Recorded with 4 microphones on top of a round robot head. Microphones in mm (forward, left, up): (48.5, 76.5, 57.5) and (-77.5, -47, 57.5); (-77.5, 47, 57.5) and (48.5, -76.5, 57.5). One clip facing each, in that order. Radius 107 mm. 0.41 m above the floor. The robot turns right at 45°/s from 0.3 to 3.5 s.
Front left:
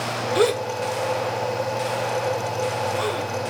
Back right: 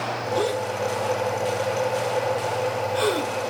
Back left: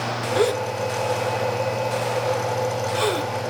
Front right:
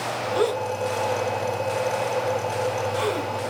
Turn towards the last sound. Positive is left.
turn(degrees=-160)